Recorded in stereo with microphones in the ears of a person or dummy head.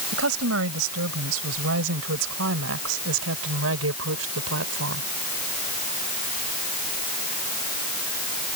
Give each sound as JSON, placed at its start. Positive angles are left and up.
{"t": 0.1, "sound": "a woman speaking", "side_deg": -85}